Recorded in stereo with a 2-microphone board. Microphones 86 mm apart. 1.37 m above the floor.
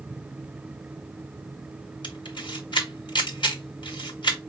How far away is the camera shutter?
About 1.4 m.